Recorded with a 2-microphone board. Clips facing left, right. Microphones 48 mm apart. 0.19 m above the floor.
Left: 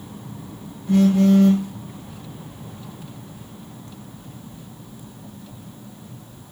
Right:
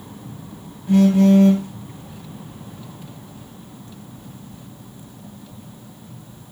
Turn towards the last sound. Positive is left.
turn(degrees=-30)  # may be behind; listen again after turning